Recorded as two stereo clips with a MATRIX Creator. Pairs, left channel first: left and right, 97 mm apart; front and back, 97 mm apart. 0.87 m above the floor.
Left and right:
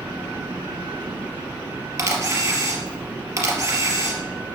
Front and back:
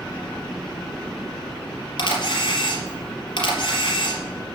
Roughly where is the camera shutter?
Ahead right.